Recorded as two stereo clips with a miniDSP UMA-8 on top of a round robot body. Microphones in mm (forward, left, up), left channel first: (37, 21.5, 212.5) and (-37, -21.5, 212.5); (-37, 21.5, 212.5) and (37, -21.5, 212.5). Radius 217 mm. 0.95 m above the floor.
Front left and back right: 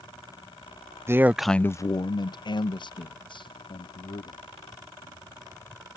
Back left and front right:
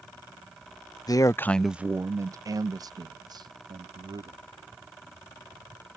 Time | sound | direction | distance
1.1 | a man speaking | 160° left | ?